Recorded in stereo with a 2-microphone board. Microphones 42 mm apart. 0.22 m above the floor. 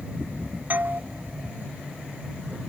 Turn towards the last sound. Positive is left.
turn(degrees=-50)  # may be behind; listen again after turning